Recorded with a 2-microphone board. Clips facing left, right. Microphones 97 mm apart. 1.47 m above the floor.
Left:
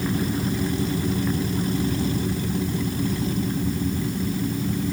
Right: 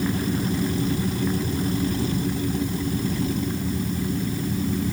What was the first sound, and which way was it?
Only background noise.